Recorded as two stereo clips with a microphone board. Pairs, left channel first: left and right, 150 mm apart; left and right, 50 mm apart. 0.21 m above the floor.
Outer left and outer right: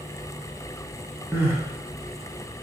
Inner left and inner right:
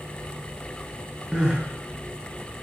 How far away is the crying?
About 0.6 m.